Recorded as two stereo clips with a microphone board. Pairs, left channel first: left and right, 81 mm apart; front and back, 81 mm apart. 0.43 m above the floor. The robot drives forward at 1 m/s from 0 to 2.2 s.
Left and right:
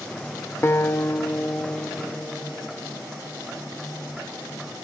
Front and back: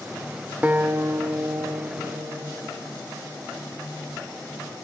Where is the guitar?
120° left, 0.8 m; by 2.8 s 165° left, 2.0 m.